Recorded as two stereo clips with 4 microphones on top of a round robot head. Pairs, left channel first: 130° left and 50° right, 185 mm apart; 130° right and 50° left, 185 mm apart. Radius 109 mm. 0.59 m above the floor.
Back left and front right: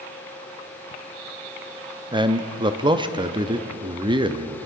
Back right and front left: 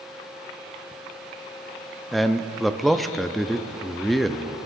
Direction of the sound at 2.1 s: 40° right.